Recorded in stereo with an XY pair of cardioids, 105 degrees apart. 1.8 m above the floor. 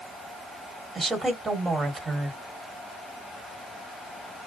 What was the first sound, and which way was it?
A woman speaking, 35° right.